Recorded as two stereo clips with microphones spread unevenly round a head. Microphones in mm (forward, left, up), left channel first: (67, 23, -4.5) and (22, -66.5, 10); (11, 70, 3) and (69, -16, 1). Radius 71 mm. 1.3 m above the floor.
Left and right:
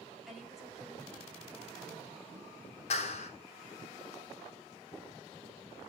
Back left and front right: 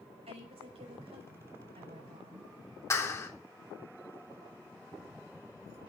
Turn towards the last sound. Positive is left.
turn(degrees=65)